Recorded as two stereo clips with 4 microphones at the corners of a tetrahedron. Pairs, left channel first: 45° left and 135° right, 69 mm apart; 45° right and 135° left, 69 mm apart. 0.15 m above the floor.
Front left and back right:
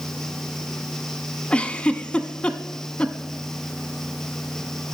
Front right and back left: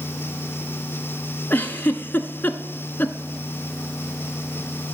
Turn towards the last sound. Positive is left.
turn(degrees=-15)